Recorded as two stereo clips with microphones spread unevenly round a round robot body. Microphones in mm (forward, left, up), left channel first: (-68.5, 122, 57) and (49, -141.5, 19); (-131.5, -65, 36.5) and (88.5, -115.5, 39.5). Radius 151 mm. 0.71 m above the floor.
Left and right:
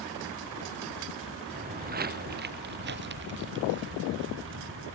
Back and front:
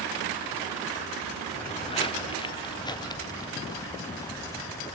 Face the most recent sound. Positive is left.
turn(degrees=-115)